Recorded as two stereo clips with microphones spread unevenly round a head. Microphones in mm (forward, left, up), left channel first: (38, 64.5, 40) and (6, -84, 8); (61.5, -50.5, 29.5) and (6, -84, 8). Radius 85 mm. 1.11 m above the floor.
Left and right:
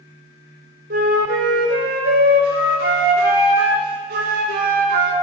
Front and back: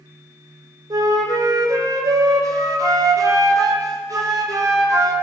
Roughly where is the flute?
Behind right.